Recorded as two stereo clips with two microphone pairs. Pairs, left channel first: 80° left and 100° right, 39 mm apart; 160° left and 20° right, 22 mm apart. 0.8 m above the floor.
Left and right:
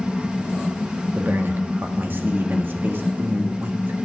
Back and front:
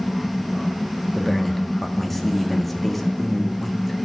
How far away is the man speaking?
About 1.6 m.